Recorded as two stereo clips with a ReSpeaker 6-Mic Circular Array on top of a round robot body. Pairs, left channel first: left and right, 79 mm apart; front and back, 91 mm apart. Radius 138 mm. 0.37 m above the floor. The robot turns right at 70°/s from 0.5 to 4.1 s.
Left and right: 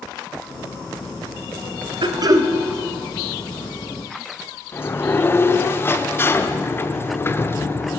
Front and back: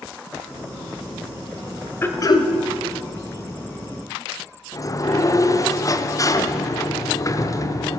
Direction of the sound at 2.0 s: 70° right.